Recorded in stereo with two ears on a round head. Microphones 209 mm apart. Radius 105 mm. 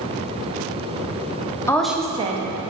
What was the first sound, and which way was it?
A woman speaking, 15° left (ahead or behind).